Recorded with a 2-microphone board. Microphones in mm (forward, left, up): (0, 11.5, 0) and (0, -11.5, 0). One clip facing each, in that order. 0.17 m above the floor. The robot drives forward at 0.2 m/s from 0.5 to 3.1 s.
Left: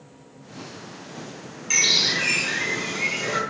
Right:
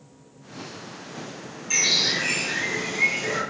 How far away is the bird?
About 1.4 m.